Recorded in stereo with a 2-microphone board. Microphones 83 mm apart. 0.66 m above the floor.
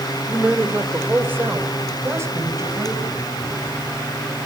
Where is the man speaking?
10° right (ahead or behind), 2.0 m; by 3.3 s 35° right (ahead or behind), 5 m.